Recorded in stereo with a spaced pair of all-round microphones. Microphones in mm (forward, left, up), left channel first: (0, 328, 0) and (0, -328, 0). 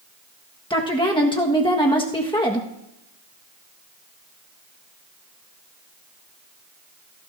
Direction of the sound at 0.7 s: 10° left (ahead or behind).